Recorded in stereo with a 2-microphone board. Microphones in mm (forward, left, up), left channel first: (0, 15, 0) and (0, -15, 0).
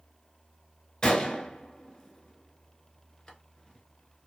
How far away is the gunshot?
About 0.8 m.